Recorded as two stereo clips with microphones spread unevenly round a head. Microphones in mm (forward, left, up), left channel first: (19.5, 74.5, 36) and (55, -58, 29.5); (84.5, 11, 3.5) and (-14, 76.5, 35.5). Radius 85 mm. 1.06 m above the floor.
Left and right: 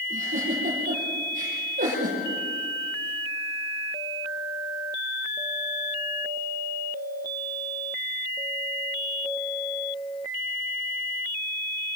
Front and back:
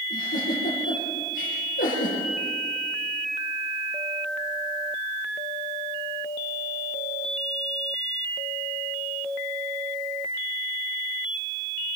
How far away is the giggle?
About 7.5 m.